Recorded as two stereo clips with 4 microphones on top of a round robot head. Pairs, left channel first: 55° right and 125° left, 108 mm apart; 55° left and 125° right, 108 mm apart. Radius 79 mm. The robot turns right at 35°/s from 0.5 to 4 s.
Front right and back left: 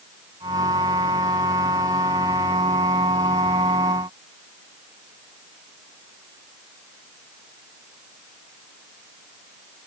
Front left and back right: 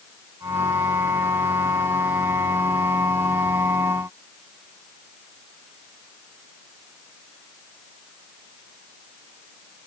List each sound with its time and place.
Only background noise.